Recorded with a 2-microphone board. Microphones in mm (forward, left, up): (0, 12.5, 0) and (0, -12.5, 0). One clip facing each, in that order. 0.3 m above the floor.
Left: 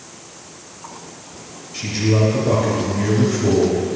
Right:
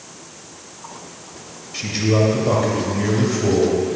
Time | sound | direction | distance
1.7 | a man speaking | 20° right (ahead or behind) | 1.2 m